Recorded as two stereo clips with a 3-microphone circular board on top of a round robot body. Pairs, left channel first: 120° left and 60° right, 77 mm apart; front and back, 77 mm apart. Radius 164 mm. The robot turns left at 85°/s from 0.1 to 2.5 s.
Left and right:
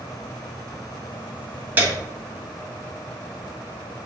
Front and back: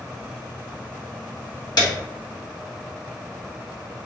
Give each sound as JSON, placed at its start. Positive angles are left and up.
{"t": 1.8, "sound": "a piano", "azimuth_deg": 5, "distance_m": 2.0}